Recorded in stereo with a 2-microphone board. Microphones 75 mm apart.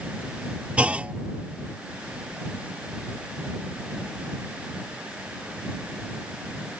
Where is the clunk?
20° right (ahead or behind).